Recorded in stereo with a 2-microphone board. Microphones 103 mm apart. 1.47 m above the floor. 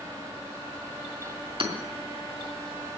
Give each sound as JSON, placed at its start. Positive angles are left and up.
{"t": 1.6, "sound": "hammering", "side_deg": -60, "distance_m": 2.5}